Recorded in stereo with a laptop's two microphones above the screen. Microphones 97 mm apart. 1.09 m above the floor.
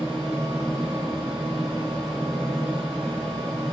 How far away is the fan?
About 1.6 m.